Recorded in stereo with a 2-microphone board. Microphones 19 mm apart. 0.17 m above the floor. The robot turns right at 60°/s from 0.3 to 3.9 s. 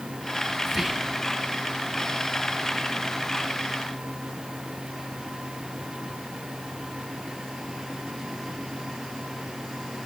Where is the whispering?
20° right (ahead or behind), 1.0 m; by 1.2 s 10° right (ahead or behind), 1.0 m.